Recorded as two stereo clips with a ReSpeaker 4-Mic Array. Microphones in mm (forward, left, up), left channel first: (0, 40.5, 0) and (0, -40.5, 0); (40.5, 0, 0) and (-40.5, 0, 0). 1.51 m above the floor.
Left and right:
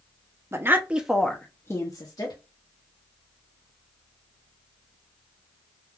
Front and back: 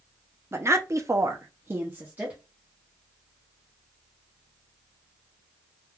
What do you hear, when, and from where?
0.5 s a woman speaking: 135° right, 0.6 m; by 2.4 s 110° left, 0.8 m